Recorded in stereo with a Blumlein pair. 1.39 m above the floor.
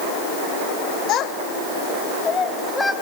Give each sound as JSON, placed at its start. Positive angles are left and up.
{"t": 1.1, "sound": "a child speaking", "azimuth_deg": 35, "distance_m": 2.0}